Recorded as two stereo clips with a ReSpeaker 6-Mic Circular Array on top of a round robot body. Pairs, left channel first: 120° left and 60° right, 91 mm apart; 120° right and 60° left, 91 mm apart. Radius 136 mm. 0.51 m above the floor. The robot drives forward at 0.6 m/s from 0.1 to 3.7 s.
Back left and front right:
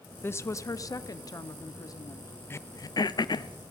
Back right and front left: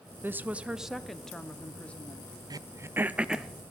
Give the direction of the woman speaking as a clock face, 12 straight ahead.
9 o'clock.